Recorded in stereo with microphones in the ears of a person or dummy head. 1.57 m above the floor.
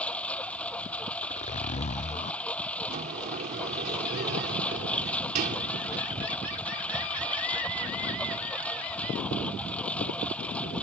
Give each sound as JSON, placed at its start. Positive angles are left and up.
{"t": 0.0, "sound": "a lawn mower", "side_deg": 5}
{"t": 1.2, "sound": "a zipper", "side_deg": 35}
{"t": 2.9, "sound": "a sliding door", "side_deg": -45}